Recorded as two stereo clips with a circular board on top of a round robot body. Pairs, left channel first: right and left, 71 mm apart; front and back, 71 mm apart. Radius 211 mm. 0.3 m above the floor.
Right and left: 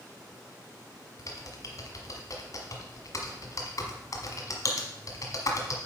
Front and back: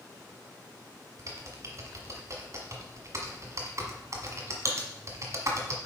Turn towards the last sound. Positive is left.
turn(degrees=-135)